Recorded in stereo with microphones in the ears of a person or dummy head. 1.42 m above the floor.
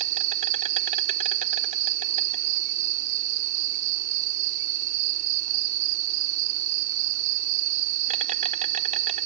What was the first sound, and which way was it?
An insect, 40° right (ahead or behind).